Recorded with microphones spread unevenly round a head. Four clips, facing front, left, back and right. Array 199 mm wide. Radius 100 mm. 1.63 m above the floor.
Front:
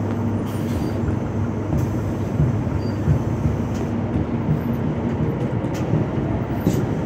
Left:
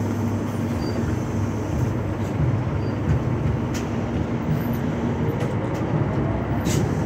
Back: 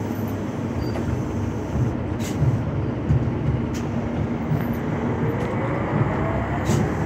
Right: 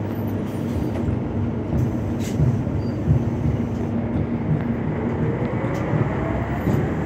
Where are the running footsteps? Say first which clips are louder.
Right 1 dB, front 2 dB; 40° right, 6 m; by 7.1 s 10° right, 8.5 m.